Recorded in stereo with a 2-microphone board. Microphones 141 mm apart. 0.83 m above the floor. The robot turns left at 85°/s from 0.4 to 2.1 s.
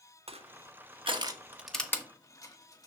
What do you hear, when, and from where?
0.3 s crushing: 45° right (ahead or behind), 1.2 m; by 2.9 s 25° left (ahead or behind), 1.2 m